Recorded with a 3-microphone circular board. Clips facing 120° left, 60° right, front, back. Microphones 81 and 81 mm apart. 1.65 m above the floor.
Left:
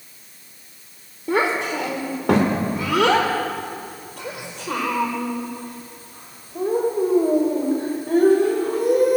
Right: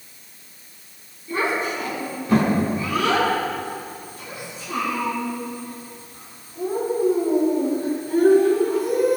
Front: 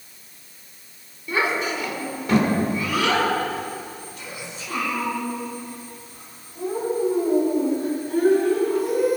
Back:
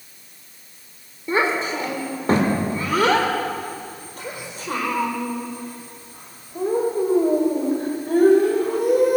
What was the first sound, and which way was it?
A child speaking, 125° left.